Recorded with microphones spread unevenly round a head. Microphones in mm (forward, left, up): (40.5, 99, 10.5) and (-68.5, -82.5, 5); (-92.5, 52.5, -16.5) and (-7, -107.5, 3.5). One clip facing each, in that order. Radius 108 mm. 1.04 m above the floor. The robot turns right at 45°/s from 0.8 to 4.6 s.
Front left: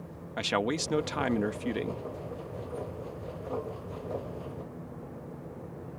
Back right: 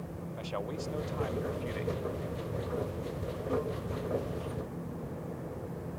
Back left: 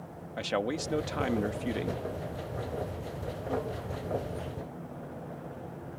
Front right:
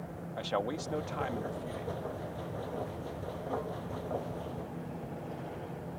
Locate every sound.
0.4 s a man speaking: 50° left; by 2.0 s 105° left